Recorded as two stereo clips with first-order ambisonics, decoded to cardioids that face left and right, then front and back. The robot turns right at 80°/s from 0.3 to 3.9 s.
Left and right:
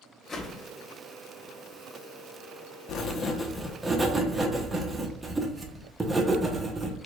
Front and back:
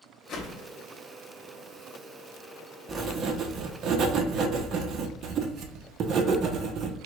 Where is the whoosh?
30° left, 0.9 m; by 0.7 s 60° left, 0.9 m.